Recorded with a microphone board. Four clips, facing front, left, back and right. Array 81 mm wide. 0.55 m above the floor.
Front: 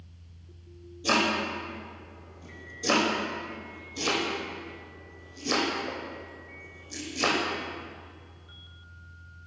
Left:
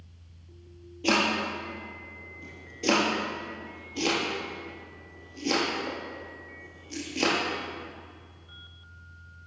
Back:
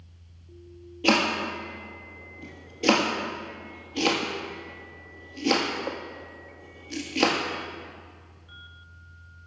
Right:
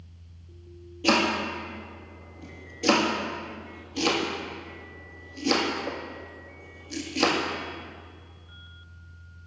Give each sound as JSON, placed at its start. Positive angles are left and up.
{"t": 1.0, "sound": "chopping", "azimuth_deg": -175, "distance_m": 1.9}